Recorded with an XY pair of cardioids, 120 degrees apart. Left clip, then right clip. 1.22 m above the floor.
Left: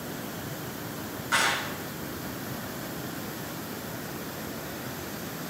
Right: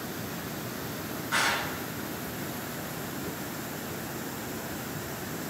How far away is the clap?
About 4.5 m.